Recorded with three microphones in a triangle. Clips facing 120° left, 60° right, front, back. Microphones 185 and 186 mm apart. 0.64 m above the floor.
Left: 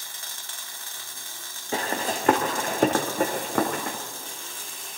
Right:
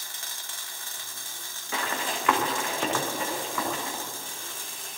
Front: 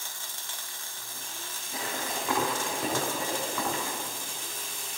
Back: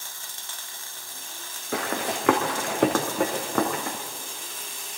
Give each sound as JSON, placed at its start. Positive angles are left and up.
{"t": 1.7, "sound": "running footsteps", "azimuth_deg": 175, "distance_m": 3.0}